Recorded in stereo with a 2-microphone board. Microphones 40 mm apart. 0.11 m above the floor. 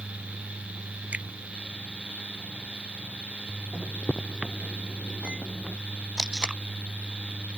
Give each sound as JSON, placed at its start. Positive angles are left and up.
{"t": 1.1, "sound": "a finger snap", "side_deg": -40}
{"t": 3.7, "sound": "a microwave", "side_deg": -25}
{"t": 6.2, "sound": "tape being pulled", "side_deg": -20}